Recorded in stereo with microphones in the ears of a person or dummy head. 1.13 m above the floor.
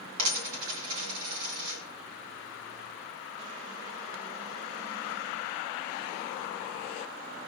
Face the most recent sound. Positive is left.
turn(degrees=-75)  # may be behind; listen again after turning